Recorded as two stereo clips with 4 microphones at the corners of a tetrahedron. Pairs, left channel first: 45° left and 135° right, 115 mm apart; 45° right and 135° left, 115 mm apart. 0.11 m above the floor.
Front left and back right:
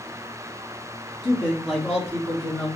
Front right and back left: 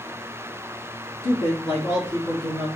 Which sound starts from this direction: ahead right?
A man speaking, at 1.2 s.